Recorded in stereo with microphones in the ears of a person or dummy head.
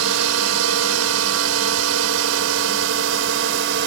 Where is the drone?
80° right; by 3.9 s 70° right (ahead or behind).